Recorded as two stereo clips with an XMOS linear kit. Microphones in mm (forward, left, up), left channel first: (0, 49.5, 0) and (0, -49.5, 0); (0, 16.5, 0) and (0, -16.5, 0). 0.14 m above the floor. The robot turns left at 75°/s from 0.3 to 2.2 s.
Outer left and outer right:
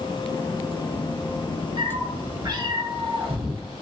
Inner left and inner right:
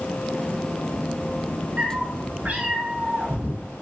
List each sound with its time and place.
1.8 s a cat meowing: 85° right, 0.8 m; by 3.6 s 115° right, 0.8 m